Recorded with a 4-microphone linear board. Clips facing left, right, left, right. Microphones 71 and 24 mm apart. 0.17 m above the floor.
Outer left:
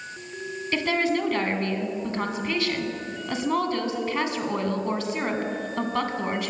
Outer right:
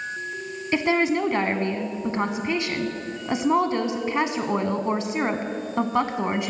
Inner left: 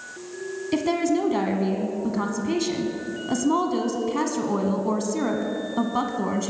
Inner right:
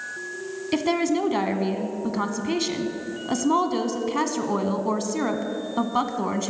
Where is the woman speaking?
20° right (ahead or behind), 1.0 m.